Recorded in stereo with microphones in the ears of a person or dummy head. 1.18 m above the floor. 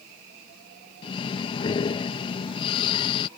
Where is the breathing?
30° left (ahead or behind).